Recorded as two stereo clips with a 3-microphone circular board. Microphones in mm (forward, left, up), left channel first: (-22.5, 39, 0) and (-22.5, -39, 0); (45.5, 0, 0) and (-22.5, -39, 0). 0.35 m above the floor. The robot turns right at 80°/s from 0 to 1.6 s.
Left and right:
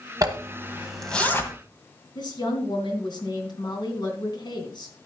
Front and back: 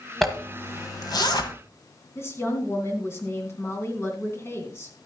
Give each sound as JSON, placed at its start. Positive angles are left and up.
{"t": 0.2, "sound": "a zipper", "azimuth_deg": -60, "distance_m": 1.6}
{"t": 2.1, "sound": "a woman speaking", "azimuth_deg": 85, "distance_m": 3.0}